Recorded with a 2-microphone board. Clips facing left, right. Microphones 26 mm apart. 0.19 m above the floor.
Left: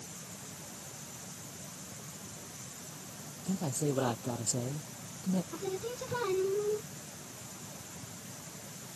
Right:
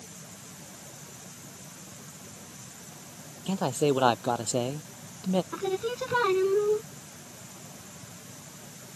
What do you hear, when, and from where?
3.5 s a man speaking: 75° right (ahead or behind)
5.5 s singing: 45° right (ahead or behind)